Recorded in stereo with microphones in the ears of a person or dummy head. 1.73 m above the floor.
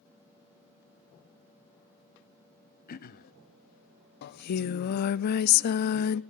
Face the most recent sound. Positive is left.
turn(degrees=55)  # may be behind; listen again after turning